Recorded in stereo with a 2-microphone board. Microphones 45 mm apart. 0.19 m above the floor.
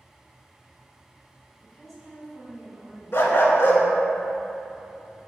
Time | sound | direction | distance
1.6 | a woman speaking | 5° left (ahead or behind) | 1.1 m
3.1 | a dog barking | 60° left (ahead or behind) | 0.5 m